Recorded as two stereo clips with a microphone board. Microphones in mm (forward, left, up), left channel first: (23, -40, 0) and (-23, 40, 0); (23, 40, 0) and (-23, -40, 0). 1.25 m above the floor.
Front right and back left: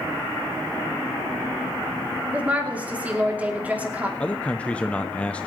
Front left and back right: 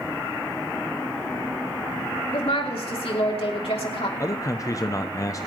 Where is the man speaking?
15° left, 0.6 m.